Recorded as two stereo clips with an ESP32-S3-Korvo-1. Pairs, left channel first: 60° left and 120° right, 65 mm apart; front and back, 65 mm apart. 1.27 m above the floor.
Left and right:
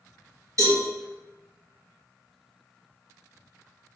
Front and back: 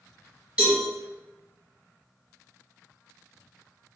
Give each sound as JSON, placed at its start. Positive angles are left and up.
{"t": 0.6, "sound": "a cowbell", "azimuth_deg": -110, "distance_m": 1.9}